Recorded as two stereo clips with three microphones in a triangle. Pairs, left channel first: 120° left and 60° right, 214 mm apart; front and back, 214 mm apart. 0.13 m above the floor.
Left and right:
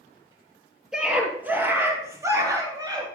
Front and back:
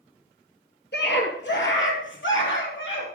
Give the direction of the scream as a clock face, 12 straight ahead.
11 o'clock.